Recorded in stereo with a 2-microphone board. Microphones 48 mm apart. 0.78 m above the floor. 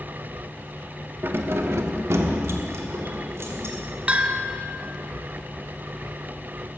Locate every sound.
1.2 s keys jangling: 45° right (ahead or behind), 0.9 m; by 3.8 s 65° right (ahead or behind), 2.5 m
4.1 s a bell: 25° right (ahead or behind), 0.8 m